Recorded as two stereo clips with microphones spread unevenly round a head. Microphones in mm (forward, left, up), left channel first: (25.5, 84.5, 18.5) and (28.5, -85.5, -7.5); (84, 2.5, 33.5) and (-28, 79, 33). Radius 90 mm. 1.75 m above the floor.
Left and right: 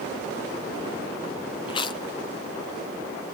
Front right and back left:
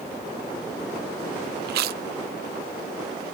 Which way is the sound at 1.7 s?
155° left.